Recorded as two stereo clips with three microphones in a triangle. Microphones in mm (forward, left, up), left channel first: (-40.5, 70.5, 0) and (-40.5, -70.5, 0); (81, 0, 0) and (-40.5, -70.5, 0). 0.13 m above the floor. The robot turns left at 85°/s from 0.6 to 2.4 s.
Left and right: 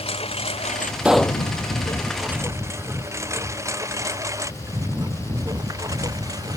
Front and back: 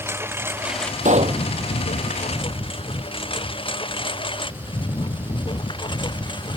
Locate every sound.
0.0 s a lawn mower: 140° left; by 6.6 s 25° right
1.1 s a pop: 170° right; by 1.4 s 155° left